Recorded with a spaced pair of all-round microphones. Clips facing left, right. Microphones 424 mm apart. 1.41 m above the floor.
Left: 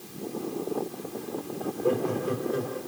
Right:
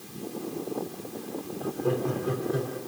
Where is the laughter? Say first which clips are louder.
Left 1 dB; 25° right (ahead or behind), 4.5 m.